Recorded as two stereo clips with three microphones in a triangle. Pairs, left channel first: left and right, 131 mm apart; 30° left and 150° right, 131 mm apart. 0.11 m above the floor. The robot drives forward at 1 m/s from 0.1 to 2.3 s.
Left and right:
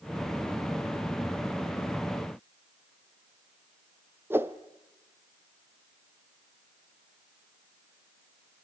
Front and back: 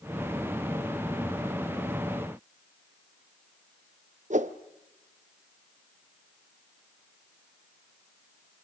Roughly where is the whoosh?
Behind.